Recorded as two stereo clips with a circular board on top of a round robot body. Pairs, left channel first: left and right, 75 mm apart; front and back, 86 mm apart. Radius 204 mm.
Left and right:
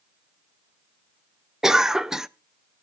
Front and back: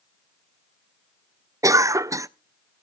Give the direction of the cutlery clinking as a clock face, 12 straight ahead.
I don't hear cutlery clinking.